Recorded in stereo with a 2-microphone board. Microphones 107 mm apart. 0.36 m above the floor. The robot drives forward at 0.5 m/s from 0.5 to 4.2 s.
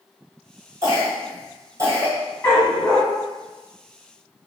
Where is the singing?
I don't hear singing.